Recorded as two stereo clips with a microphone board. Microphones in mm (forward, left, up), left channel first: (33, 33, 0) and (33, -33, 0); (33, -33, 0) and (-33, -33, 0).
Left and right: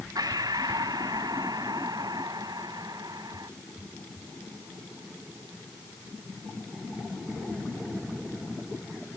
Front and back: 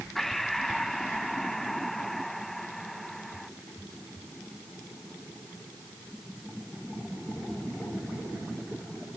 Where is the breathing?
85° right.